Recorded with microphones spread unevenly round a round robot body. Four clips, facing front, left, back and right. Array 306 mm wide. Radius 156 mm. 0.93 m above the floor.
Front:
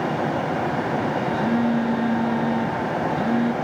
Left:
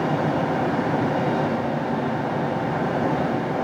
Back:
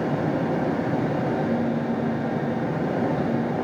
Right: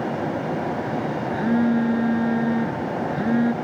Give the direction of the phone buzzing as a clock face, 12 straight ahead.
2 o'clock.